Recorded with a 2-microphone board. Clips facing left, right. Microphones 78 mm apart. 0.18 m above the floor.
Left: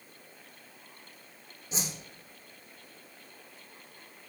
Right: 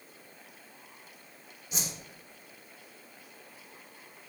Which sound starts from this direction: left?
A whoosh, at 1.7 s.